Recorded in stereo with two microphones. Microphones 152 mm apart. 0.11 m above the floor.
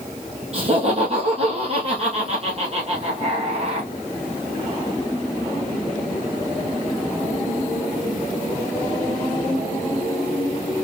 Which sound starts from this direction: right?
Laughter, at 0.5 s.